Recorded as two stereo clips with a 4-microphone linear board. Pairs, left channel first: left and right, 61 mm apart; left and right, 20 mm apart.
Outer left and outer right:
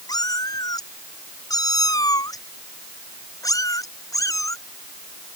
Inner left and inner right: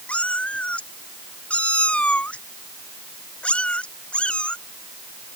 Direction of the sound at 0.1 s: 80° left.